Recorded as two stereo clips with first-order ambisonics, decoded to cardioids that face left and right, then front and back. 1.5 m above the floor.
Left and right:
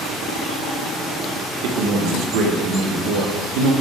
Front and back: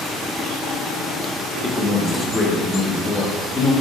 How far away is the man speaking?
About 1.2 m.